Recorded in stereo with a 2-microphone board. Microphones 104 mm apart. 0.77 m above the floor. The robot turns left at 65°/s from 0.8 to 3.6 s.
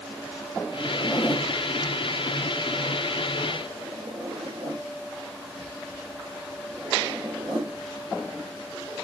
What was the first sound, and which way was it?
A zipper, 45° left (ahead or behind).